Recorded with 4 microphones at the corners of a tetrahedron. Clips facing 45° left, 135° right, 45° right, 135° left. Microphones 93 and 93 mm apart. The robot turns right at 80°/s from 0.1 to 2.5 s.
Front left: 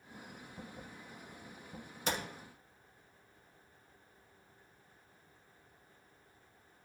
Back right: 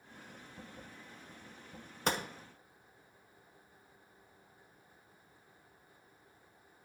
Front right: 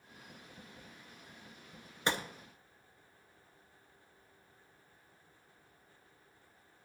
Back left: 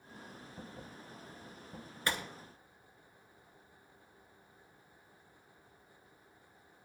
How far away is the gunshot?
About 0.6 m.